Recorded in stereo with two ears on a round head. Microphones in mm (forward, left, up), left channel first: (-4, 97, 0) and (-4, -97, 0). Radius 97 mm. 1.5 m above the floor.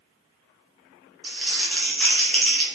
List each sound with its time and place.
1.2 s crumpling: centre (ahead or behind), 0.9 m